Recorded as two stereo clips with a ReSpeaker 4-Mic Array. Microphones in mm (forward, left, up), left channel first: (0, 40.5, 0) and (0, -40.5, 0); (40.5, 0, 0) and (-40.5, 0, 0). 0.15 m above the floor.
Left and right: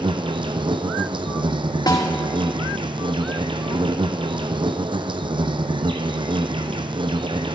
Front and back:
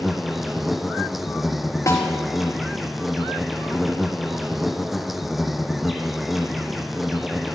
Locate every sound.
0.0 s an insect: 90° right, 0.9 m
1.9 s a snare drum: 55° left, 3.5 m